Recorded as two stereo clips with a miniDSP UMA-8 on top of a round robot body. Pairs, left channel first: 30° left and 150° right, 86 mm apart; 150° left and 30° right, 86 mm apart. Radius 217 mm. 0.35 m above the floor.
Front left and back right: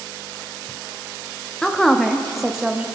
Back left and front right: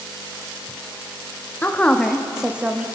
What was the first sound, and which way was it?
A woman speaking, 105° left.